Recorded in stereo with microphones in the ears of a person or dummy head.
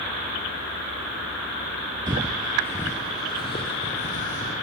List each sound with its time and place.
2.1 s footsteps: 10° right (ahead or behind), 1.6 m; by 4.5 s 40° left (ahead or behind), 4 m